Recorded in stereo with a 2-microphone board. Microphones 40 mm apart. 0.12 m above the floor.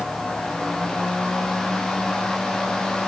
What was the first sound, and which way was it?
Only background noise.